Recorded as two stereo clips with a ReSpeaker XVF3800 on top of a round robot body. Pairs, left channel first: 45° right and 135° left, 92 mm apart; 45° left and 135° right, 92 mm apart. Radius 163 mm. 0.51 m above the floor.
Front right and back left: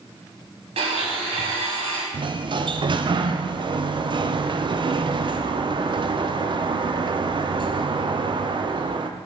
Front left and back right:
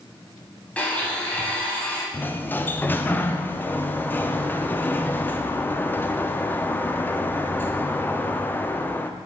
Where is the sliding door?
110° left, 0.5 m.